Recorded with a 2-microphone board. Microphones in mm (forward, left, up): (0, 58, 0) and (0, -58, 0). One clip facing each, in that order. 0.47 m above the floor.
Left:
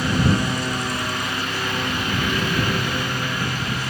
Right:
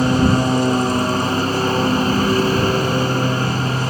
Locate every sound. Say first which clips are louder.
0.0 s a lawn mower: right 6 dB; 35° right (ahead or behind)